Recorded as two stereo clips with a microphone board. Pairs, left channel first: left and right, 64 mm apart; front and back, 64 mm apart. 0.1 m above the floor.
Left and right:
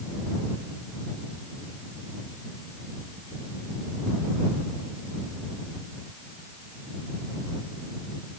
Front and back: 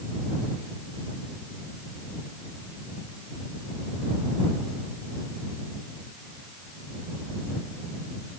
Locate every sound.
Only background noise.